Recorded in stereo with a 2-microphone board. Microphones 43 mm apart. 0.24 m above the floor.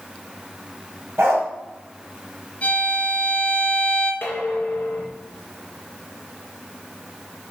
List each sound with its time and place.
1.2 s a dog barking: 80° right, 2.5 m
2.6 s a violin: 30° left (ahead or behind), 3 m
4.2 s dishes clattering: 55° left (ahead or behind), 2.5 m